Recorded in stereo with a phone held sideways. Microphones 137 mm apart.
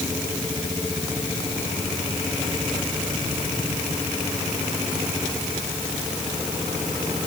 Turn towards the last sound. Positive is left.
No sound to turn to.